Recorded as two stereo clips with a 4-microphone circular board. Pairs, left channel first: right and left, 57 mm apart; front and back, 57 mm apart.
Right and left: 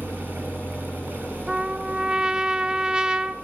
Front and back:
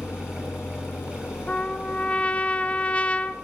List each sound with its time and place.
0.0 s an engine running: 30° right, 3.5 m
1.5 s a trumpet: 35° left, 0.6 m